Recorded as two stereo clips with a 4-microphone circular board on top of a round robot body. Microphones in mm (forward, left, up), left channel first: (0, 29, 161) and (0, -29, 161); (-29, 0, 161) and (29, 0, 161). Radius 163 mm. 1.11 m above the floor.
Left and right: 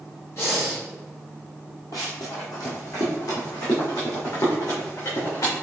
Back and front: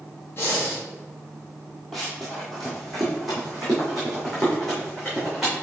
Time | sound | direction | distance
0.4 | breathing | 130° left | 2.5 m
1.9 | running footsteps | 95° left | 1.4 m